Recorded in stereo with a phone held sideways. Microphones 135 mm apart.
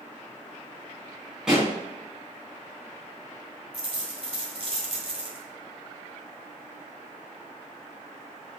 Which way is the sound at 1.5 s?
5° right (ahead or behind).